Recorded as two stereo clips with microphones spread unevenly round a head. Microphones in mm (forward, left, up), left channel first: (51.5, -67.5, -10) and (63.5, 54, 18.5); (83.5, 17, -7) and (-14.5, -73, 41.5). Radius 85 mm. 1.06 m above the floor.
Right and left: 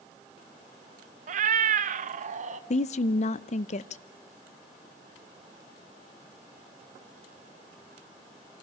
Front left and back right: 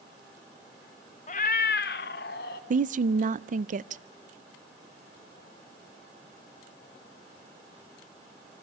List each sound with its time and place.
1.3 s a cat meowing: 105° left, 0.5 m; by 2.6 s 65° left, 1.2 m
2.7 s a woman speaking: 100° right, 0.6 m